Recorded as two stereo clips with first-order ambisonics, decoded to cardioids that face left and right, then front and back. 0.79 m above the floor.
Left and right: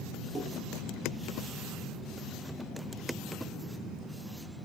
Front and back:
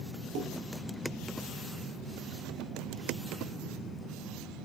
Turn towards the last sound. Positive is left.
turn(degrees=180)